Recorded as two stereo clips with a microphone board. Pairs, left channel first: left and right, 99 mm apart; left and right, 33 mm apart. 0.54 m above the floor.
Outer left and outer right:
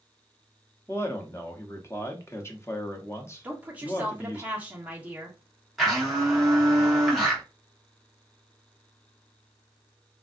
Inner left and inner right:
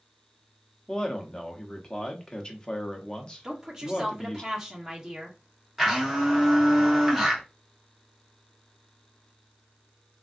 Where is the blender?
Centre (ahead or behind), 1.2 m.